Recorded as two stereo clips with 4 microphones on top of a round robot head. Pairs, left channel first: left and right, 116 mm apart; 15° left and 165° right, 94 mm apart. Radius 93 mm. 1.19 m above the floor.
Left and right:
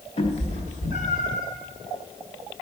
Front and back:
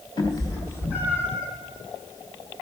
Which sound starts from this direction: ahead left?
A cat meowing, at 0.2 s.